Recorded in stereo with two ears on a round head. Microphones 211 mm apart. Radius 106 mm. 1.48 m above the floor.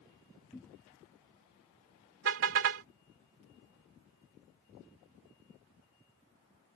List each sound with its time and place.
0.5 s a cupboard door: 10° left (ahead or behind)
2.2 s a car horn: 55° right (ahead or behind)